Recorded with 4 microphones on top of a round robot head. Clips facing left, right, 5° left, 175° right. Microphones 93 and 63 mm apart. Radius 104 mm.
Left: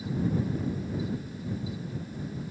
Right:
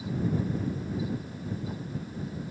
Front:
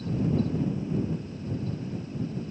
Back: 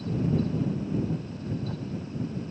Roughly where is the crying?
I don't hear crying.